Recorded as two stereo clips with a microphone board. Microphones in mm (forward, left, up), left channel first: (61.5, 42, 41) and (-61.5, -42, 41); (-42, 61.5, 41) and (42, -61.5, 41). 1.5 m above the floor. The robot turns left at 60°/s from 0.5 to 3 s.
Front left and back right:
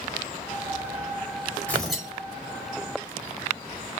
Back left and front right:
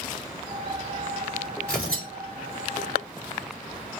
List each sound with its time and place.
1.7 s tearing paper: 45° right, 4 m; by 2.1 s 65° right, 4 m